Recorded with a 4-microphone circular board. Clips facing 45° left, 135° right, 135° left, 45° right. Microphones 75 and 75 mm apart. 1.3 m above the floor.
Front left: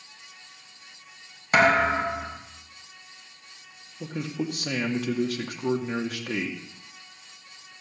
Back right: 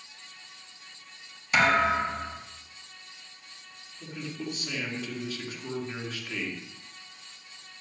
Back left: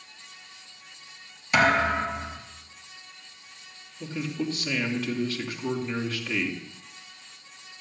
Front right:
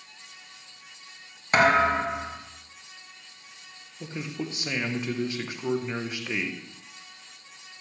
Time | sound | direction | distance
1.5 | a thud | 5° left | 2.5 m
4.0 | a man speaking | 25° left | 1.8 m